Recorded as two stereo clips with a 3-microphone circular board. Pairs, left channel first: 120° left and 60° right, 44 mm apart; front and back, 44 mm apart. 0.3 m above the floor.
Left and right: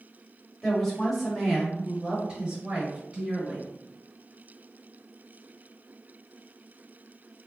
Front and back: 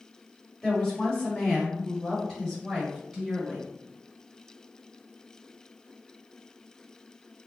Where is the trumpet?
No trumpet in this recording.